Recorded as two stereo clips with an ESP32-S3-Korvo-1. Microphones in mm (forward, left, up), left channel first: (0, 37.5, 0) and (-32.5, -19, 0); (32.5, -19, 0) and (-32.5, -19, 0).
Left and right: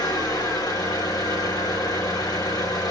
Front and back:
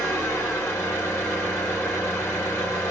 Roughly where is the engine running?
Ahead left.